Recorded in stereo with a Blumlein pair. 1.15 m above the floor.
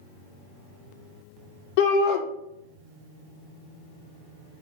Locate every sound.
1.8 s a shout: 50° left, 0.6 m